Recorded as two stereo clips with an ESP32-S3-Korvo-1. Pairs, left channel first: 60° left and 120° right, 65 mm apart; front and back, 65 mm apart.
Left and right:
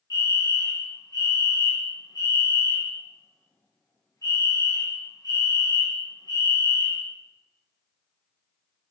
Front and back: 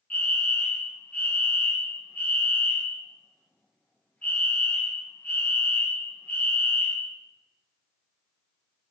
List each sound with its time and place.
0.1 s a fire alarm: 70° left, 3 m